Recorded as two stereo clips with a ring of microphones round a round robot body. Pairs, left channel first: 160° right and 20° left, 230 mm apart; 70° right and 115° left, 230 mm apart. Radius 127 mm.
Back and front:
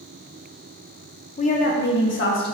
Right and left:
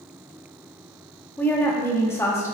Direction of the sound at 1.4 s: 140° right.